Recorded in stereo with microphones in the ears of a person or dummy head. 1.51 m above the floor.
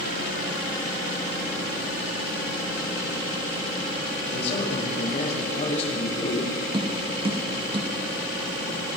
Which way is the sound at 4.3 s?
35° left (ahead or behind).